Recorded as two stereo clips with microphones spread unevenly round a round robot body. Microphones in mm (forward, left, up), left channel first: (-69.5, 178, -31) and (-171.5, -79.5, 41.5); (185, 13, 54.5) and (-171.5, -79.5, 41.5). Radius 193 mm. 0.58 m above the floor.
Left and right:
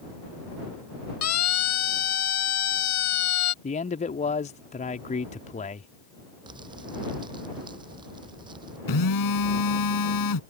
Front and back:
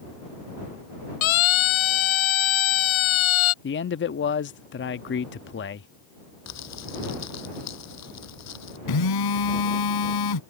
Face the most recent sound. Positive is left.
turn(degrees=45)